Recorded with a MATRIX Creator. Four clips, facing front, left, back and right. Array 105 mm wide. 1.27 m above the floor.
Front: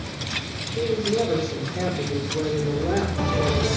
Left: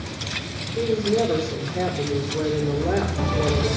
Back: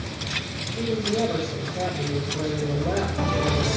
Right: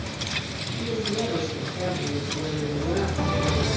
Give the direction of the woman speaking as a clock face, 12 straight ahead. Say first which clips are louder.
Left 7 dB, front 2 dB; 10 o'clock.